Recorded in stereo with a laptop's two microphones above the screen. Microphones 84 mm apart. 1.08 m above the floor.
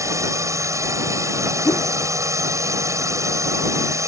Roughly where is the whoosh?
Left.